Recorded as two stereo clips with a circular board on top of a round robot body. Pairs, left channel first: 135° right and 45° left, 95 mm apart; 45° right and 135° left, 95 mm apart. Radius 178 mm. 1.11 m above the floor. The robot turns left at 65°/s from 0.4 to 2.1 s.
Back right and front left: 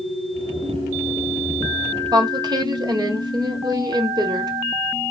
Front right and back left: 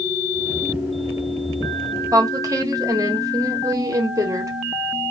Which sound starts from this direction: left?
A woman speaking, at 2.1 s.